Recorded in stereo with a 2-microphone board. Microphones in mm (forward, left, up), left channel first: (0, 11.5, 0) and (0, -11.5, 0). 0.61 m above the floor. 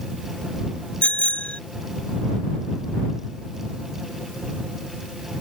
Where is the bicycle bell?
85° left.